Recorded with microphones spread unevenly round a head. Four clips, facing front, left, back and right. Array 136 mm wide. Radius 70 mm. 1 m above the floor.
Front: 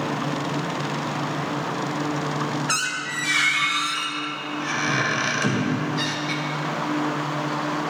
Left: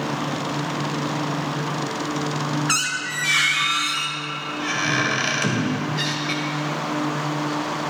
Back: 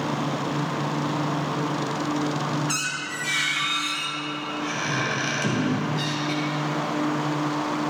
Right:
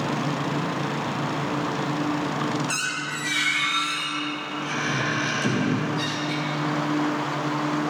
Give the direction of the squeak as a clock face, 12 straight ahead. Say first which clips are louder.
Left 3 dB, front 3 dB; 11 o'clock.